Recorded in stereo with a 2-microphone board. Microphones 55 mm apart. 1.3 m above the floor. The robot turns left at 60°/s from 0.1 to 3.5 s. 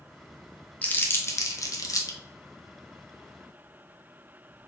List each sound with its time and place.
0.8 s crumpling: 25° left (ahead or behind), 0.6 m; by 2.2 s 75° left (ahead or behind), 0.6 m